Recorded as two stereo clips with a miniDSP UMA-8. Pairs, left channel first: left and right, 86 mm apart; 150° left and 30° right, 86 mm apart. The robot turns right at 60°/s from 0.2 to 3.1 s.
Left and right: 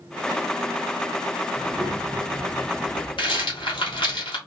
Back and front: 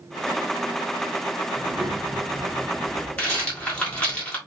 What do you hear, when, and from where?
1.6 s a child speaking: 65° right, 1.3 m; by 4.2 s 25° left, 1.3 m
3.2 s a rattle: 75° left, 1.4 m